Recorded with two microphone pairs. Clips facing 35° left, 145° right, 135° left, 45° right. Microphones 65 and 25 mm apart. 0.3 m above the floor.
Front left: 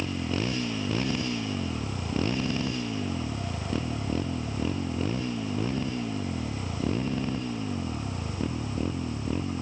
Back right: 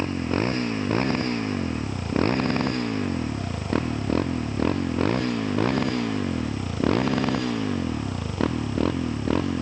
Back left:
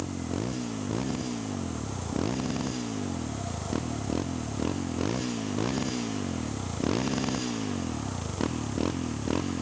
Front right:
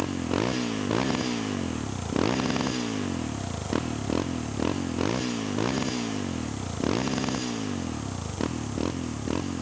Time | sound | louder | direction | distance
0.0 | a motorcycle | back right 5 dB, front right 5 dB | 95° right | ?